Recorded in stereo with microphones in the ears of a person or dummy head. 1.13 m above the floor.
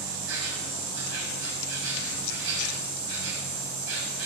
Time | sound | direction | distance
0.0 | an insect | 70° right (ahead or behind) | 5 m